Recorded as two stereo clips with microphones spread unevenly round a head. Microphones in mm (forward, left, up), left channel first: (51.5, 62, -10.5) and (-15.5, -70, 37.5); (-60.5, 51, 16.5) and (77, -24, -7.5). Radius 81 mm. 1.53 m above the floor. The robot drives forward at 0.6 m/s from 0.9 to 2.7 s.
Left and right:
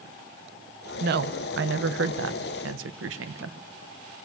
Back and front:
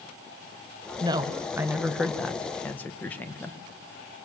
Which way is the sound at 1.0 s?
95° right.